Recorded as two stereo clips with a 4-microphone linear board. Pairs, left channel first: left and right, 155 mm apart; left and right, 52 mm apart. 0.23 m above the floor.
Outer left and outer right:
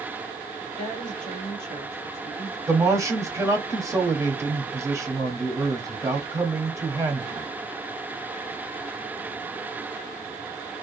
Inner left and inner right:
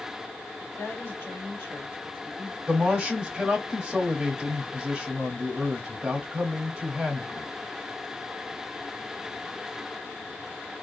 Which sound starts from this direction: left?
A woman speaking, at 0.6 s.